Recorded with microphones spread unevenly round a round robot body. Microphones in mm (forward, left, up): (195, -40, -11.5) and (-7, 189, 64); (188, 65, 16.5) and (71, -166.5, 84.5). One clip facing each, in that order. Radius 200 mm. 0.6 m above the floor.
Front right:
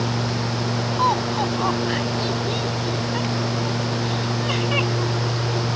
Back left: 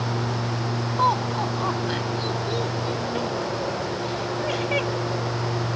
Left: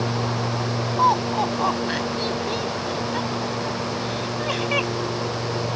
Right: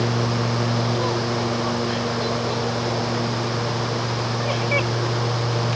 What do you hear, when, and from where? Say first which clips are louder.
1.0 s laughter: front right 3 dB, right 1 dB; 60° left; by 5.7 s 15° left